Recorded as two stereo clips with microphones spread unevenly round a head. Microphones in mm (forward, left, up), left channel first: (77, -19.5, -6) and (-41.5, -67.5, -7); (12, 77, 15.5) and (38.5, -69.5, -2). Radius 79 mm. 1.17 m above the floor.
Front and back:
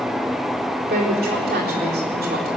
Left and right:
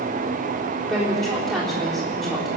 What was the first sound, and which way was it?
A woman speaking, 170° right.